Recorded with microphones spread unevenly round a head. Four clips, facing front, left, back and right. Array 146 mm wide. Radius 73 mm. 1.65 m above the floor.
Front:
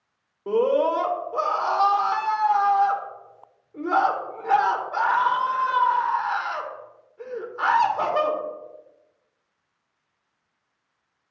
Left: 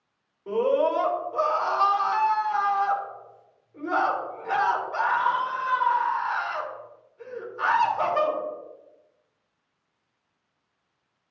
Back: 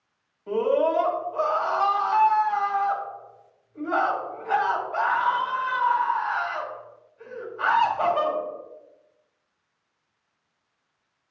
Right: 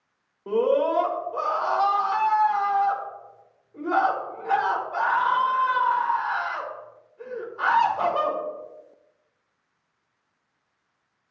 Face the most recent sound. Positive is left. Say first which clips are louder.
# right 1 dB, front 2 dB
turn(degrees=-25)